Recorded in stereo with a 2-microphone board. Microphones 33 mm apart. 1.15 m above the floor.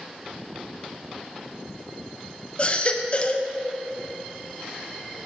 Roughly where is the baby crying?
Left.